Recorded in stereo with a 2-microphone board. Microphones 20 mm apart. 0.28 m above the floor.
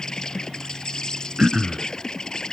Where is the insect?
40° left (ahead or behind).